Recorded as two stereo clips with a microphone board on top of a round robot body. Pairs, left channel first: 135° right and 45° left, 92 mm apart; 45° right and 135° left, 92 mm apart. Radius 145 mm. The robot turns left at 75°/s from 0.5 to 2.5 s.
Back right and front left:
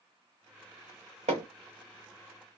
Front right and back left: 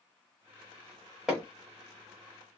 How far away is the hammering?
About 0.6 m.